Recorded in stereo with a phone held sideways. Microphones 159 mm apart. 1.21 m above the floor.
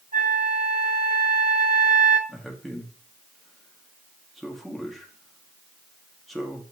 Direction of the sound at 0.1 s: 60° right (ahead or behind).